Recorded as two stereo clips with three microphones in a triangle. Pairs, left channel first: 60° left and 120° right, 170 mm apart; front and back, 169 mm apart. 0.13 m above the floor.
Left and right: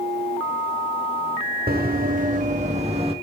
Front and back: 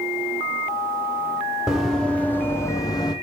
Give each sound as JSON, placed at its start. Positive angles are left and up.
{"t": 1.7, "sound": "running footsteps", "azimuth_deg": -95, "distance_m": 2.5}